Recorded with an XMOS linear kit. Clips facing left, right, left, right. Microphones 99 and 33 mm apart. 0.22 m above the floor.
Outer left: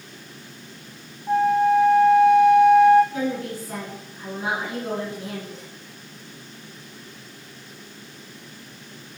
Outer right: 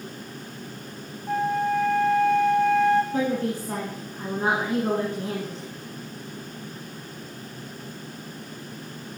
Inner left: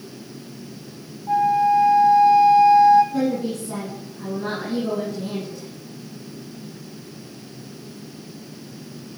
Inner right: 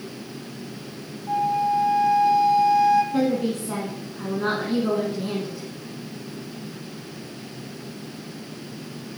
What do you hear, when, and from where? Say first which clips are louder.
1.3 s a flute: outer left 6 dB, inner left 5 dB; 15° left (ahead or behind), 1.1 m
3.1 s a woman speaking: outer right 2 dB, inner right 1 dB; 45° right (ahead or behind), 1.8 m